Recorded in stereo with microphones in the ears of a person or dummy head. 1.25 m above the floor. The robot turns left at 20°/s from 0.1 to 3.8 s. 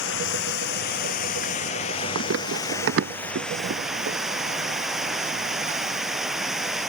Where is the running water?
70° left; by 6.9 s 5° right.